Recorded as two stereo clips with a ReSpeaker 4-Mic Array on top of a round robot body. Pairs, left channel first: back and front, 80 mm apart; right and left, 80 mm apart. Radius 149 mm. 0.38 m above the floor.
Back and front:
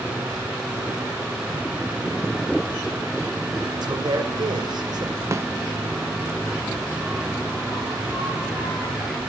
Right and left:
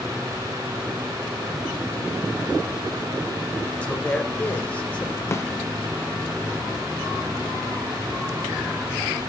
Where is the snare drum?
45° right, 0.7 m.